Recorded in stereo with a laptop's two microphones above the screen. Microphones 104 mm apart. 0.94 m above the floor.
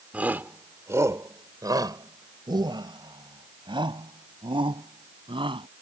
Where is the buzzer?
No buzzer in this recording.